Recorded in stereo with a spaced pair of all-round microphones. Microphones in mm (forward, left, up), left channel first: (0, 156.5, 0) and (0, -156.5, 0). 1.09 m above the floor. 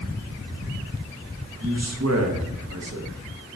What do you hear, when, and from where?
1.6 s a man speaking: 50° right (ahead or behind), 0.7 m